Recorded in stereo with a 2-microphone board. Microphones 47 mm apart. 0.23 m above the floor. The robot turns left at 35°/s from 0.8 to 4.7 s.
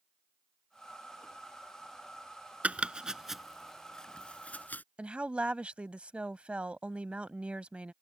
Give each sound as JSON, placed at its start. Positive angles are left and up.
{"t": 2.6, "sound": "chopping", "side_deg": -30}
{"t": 5.0, "sound": "a woman speaking", "side_deg": -25}